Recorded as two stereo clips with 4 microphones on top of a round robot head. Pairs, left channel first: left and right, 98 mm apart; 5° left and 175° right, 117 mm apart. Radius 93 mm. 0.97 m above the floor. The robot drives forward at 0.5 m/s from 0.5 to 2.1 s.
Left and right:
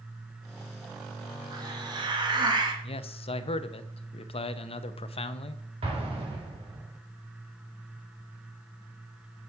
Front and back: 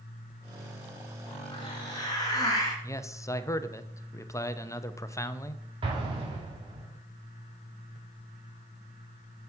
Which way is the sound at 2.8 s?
70° left.